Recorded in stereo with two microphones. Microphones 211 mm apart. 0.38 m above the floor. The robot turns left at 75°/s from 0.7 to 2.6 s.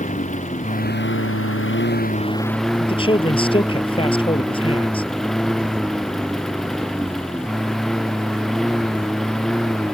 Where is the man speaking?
25° left (ahead or behind).